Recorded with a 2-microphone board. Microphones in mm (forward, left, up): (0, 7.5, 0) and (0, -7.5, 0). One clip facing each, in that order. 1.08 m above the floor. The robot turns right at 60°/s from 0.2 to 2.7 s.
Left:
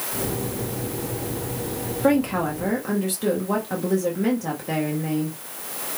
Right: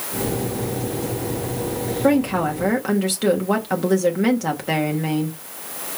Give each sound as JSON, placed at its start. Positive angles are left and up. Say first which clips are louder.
{"t": 2.0, "sound": "a woman speaking", "louder": "right 2 dB", "azimuth_deg": 175, "distance_m": 1.4}